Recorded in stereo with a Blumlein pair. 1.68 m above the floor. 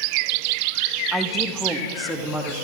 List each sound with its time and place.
1.1 s a woman speaking: 5° right, 2.5 m; by 2.5 s 5° left, 3.5 m